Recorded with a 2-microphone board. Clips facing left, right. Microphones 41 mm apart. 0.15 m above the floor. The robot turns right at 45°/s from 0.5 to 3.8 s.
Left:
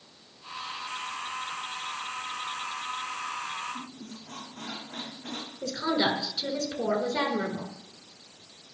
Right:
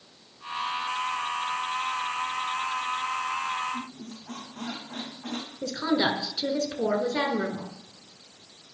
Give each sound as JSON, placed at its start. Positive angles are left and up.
{"t": 3.7, "sound": "a squeak", "side_deg": -75, "distance_m": 3.0}
{"t": 5.6, "sound": "a woman speaking", "side_deg": -25, "distance_m": 1.5}